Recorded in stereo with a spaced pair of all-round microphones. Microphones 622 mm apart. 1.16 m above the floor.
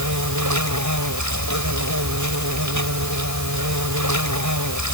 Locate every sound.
0.0 s an insect: 30° right (ahead or behind)